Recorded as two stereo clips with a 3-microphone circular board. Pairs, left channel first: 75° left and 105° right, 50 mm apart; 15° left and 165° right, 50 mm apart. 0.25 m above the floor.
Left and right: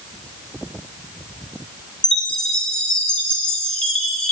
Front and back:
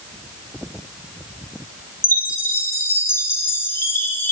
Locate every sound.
2.0 s a chime: 5° left, 0.5 m